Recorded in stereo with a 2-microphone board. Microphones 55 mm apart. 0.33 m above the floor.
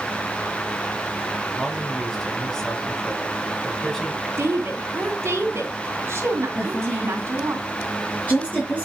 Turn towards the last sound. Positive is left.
turn(degrees=25)  # may be behind; listen again after turning